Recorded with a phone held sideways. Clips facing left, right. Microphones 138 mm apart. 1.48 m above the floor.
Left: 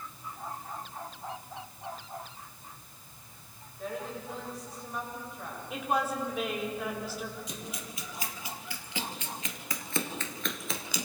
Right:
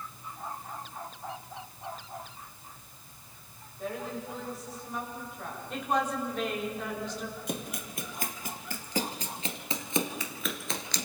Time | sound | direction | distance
3.8 | a woman speaking | centre (ahead or behind) | 7.5 m
5.7 | a woman speaking | 5° left (ahead or behind) | 4 m
7.5 | running footsteps | 60° right (ahead or behind) | 3 m